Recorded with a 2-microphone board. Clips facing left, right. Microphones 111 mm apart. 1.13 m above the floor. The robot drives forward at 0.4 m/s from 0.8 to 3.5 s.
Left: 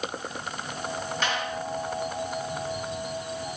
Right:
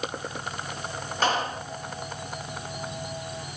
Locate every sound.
1.2 s a clap: 40° right (ahead or behind); by 1.7 s 35° right (ahead or behind)